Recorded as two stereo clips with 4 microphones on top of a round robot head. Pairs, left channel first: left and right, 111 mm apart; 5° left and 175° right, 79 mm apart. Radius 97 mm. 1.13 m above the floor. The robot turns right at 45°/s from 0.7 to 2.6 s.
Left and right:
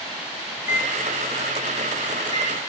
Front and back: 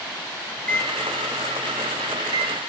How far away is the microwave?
About 4.5 m.